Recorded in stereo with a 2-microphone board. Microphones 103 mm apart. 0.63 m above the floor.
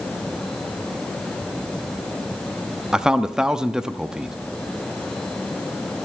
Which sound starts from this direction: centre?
A man speaking, at 2.9 s.